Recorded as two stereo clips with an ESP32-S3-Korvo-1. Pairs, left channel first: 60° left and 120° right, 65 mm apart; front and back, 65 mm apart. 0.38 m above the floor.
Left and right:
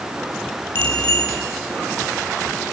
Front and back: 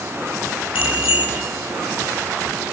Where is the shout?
I don't hear a shout.